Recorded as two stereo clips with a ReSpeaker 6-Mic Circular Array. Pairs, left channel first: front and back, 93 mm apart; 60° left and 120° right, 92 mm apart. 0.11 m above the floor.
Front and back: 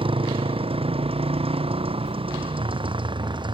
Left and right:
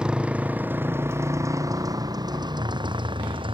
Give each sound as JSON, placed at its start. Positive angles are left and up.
{"t": 0.0, "sound": "a motorcycle", "azimuth_deg": 160}